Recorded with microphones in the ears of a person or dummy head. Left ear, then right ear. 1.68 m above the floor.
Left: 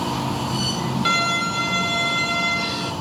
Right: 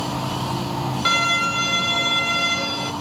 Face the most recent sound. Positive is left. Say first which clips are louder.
# right 2 dB
turn(degrees=0)  # may be behind; listen again after turning